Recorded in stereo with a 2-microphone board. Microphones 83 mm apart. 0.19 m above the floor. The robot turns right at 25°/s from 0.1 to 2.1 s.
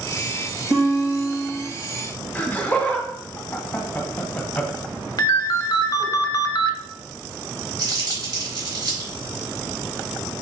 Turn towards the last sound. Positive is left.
turn(degrees=-50)  # may be behind; listen again after turning